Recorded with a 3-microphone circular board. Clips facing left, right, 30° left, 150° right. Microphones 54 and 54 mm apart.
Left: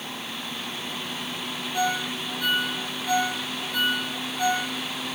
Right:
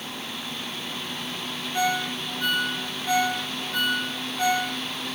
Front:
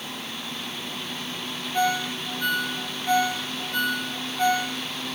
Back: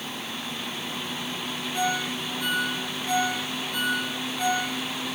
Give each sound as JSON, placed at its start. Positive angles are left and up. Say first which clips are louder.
{"t": 1.7, "sound": "a ringtone", "louder": "right 1 dB, front 3 dB", "azimuth_deg": -20, "distance_m": 7.0}